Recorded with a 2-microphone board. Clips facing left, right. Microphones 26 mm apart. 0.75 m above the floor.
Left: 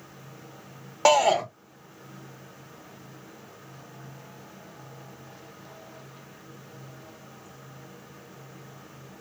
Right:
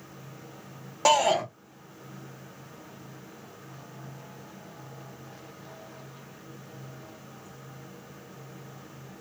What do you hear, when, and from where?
1.1 s a shout: 20° left (ahead or behind), 0.8 m